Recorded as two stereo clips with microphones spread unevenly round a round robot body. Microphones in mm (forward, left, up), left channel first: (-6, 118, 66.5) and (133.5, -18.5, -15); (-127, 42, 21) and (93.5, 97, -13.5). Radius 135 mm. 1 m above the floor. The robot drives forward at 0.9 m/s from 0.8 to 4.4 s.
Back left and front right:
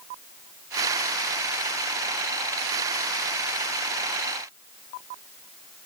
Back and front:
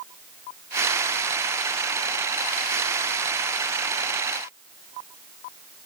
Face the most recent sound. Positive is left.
No sound to turn to.